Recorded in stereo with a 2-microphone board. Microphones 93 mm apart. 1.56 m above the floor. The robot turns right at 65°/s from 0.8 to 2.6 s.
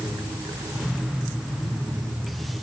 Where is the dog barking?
No dog barking in this recording.